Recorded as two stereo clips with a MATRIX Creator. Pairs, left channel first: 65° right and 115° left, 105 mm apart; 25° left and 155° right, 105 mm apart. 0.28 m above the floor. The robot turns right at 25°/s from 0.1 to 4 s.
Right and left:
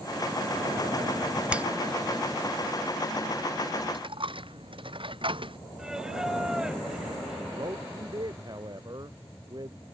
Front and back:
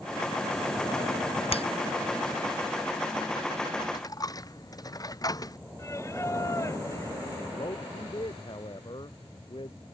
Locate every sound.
1.5 s a finger snap: 35° left; by 1.7 s 40° left
3.8 s a dropped coin: 75° left; by 5.6 s 80° left
5.8 s singing: 35° left
7.5 s a man speaking: 65° left